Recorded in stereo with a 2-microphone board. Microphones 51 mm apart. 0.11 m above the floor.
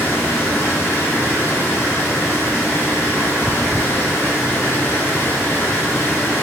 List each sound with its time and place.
0.0 s running water: 50° left (ahead or behind), 5 m